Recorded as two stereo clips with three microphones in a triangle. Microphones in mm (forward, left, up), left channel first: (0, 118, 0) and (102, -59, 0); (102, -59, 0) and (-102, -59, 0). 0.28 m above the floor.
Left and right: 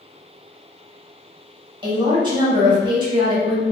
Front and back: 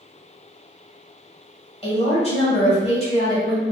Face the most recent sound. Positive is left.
turn(degrees=-20)